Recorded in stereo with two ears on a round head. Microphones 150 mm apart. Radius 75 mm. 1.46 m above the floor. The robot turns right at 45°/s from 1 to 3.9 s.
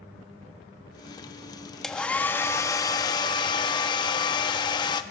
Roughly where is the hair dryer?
Centre.